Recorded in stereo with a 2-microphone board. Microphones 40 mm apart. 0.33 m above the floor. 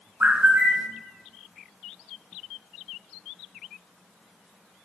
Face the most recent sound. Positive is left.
turn(degrees=-40)  # may be behind; listen again after turning